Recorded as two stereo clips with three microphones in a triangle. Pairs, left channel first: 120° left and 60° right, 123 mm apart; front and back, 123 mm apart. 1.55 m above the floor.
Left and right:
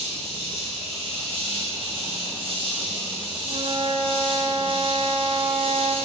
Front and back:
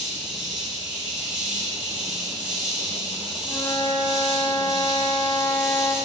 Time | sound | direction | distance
0.0 | an insect | 100° right | 4.5 m
3.4 | a flute | 55° right | 0.9 m